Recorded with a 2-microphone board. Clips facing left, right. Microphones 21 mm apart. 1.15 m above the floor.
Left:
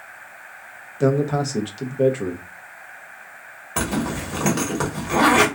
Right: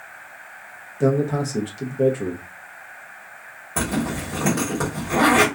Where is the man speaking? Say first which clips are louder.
Left 1 dB; 30° left (ahead or behind), 0.6 m.